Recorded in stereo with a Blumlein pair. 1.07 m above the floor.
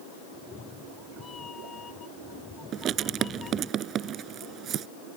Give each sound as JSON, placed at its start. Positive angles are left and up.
{"t": 0.3, "sound": "a cat meowing", "azimuth_deg": 20}
{"t": 2.7, "sound": "writing", "azimuth_deg": -30}